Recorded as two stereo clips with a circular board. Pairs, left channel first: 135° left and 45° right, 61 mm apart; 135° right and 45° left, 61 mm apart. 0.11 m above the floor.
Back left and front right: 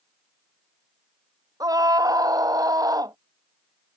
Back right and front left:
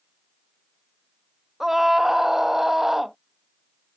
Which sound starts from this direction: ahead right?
A scream, at 1.6 s.